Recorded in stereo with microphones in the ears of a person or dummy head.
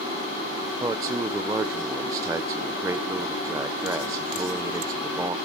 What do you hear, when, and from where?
0.8 s a man speaking: 15° right (ahead or behind), 0.5 m